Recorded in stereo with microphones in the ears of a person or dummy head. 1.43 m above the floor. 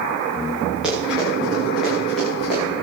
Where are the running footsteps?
5° right (ahead or behind), 9 m; by 2.7 s 5° left (ahead or behind), 10 m.